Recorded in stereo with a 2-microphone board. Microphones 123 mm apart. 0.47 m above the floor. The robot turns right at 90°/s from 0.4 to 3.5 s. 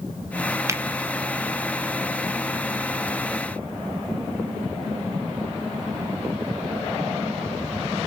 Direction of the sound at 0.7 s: 25° right (ahead or behind).